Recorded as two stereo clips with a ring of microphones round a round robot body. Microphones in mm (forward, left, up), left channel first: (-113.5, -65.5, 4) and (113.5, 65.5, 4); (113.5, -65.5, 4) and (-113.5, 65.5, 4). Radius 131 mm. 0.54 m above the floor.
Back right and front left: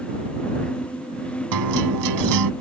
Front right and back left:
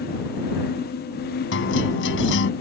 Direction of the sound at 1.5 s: 15° left.